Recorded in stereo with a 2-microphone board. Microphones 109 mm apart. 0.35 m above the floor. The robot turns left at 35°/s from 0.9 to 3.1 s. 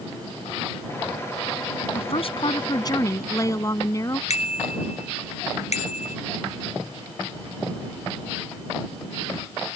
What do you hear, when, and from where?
1.9 s a woman speaking: 70° left; by 4.2 s 30° left
4.3 s a bicycle bell: 75° left (ahead or behind)